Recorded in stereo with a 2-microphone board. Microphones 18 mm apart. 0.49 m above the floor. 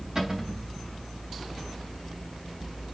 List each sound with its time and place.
0.1 s a cupboard door: 35° right (ahead or behind), 3 m